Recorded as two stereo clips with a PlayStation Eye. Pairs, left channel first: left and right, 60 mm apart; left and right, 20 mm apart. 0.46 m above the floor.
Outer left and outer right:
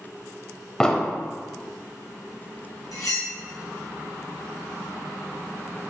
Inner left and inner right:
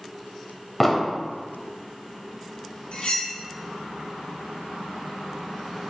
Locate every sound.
0.8 s an explosion: 10° left (ahead or behind), 0.9 m
2.9 s cutlery clinking: 80° left, 2.5 m